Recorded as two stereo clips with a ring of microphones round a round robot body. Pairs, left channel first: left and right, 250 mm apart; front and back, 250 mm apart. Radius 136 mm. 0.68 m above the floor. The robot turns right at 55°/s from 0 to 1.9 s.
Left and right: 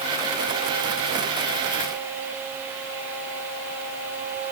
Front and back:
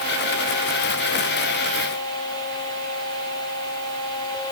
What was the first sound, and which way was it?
Only background noise.